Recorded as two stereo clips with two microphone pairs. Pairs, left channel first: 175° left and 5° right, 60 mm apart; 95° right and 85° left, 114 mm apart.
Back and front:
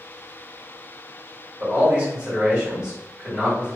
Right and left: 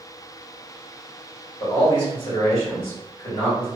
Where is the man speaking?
75° right, 1.7 m.